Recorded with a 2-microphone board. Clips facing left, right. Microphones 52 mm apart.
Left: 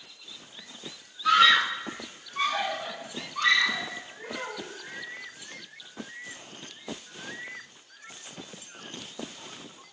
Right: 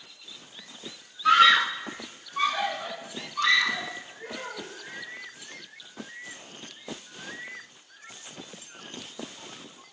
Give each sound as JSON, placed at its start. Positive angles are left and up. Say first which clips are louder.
{"t": 1.2, "sound": "a scream", "louder": "right 2 dB", "side_deg": -20, "distance_m": 0.8}
{"t": 4.2, "sound": "a child speaking", "louder": "left 3 dB", "side_deg": 70, "distance_m": 3.0}